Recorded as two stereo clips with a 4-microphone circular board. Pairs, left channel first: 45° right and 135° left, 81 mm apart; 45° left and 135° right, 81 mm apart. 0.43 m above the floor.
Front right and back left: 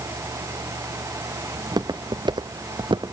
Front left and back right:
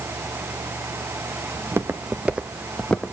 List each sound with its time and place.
1.6 s footsteps: 170° left, 1.6 m; by 3.1 s 120° left, 1.2 m